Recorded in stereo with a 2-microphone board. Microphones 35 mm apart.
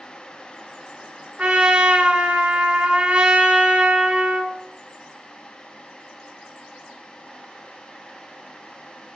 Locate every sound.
1.4 s a trumpet: 30° right (ahead or behind), 1.6 m